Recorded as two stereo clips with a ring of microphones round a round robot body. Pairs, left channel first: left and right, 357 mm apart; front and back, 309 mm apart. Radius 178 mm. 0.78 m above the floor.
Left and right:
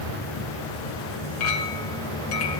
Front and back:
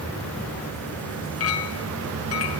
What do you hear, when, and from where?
0.0 s an insect: 85° left, 6.5 m
1.4 s a clink: 40° left, 2.5 m